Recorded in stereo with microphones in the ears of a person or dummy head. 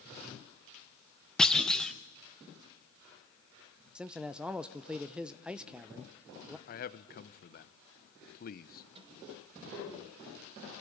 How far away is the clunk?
About 0.7 m.